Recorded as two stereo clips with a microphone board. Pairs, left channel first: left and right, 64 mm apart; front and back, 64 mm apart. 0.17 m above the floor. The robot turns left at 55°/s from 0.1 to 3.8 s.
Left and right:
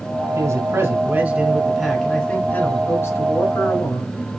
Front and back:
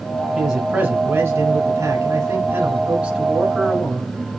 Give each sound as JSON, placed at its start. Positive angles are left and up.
{"t": 0.3, "sound": "a man speaking", "azimuth_deg": -95, "distance_m": 1.5}